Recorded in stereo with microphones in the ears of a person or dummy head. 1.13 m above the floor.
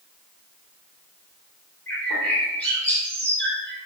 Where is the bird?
10° left (ahead or behind), 1.4 m.